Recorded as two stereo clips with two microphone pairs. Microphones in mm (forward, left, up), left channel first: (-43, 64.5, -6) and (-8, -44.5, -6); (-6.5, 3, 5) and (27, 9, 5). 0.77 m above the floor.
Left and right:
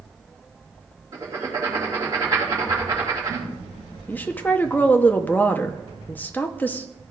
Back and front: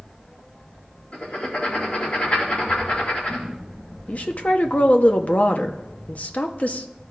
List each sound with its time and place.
1.1 s writing: 130° right, 2.5 m
4.1 s a woman speaking: straight behind, 0.6 m